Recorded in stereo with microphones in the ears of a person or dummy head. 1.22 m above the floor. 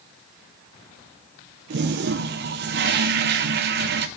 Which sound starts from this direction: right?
A toilet flushing, at 1.7 s.